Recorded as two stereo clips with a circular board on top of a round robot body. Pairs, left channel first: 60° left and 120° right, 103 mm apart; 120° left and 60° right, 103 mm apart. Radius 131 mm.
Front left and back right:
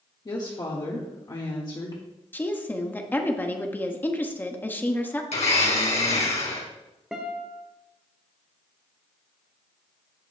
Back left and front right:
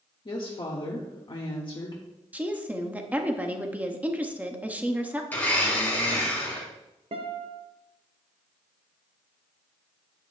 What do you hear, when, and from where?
0.2 s a woman speaking: 95° left, 1.5 m
2.3 s a woman speaking: 5° left, 1.3 m
5.3 s a blender: 45° left, 2.5 m
7.1 s a guitar: 35° right, 1.2 m